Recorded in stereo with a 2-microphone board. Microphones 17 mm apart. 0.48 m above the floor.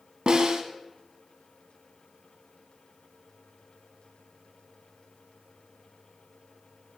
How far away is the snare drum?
About 1.3 m.